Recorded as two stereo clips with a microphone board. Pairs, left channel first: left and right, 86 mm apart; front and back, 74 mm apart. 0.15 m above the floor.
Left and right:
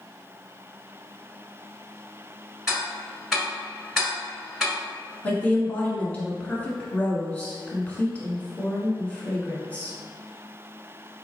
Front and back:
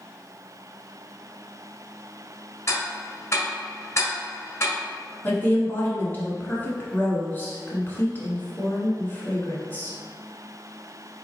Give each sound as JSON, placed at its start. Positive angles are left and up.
{"t": 2.7, "sound": "ticking", "azimuth_deg": -10, "distance_m": 1.3}
{"t": 5.2, "sound": "a woman speaking", "azimuth_deg": 35, "distance_m": 1.2}